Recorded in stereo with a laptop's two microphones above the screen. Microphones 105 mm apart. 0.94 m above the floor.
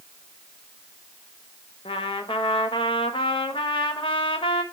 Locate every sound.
1.9 s a trumpet: 60° left (ahead or behind), 0.9 m